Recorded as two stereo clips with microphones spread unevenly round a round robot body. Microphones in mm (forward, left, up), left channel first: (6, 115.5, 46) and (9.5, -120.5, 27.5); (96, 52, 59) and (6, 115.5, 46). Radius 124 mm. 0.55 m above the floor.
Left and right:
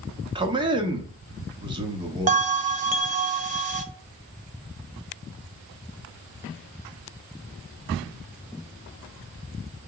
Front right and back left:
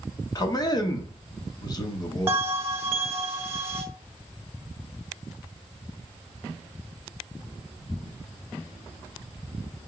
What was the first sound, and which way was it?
A man speaking, 50° right.